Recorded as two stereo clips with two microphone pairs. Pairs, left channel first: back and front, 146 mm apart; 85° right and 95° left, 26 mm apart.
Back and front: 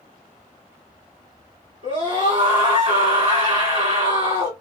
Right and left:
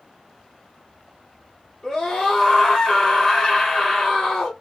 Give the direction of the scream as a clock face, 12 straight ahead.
12 o'clock.